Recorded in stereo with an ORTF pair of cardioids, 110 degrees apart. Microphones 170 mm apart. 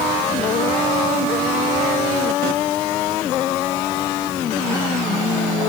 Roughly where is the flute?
No flute in this recording.